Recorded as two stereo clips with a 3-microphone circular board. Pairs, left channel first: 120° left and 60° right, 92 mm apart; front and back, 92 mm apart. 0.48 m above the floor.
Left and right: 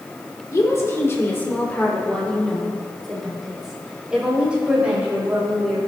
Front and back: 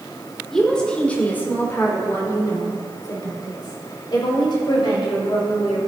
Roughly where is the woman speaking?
Left.